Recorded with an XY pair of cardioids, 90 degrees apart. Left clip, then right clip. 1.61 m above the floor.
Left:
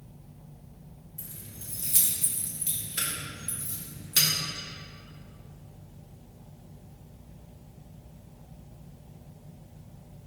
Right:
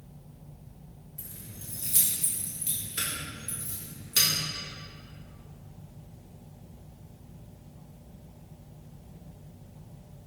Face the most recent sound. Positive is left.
turn(degrees=10)